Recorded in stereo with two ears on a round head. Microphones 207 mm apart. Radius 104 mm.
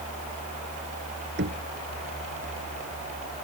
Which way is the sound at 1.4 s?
50° right (ahead or behind).